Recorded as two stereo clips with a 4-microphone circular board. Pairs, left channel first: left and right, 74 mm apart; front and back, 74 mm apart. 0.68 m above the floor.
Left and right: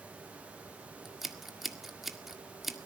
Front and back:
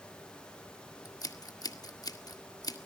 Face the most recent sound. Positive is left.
turn(degrees=-5)